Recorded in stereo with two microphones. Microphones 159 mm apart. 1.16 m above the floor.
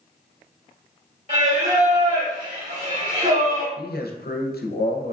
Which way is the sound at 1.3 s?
45° right (ahead or behind).